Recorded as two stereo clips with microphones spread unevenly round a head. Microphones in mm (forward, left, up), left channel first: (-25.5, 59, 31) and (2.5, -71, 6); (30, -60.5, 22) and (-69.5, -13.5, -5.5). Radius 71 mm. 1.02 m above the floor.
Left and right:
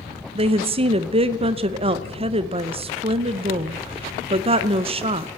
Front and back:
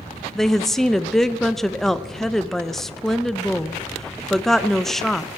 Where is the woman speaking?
115° right, 0.6 m.